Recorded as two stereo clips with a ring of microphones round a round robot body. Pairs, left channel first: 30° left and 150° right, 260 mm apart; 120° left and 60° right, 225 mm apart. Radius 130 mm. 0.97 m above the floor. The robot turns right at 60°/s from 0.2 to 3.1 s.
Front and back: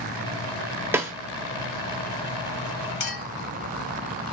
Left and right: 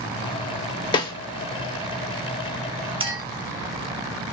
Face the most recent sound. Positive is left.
turn(degrees=15)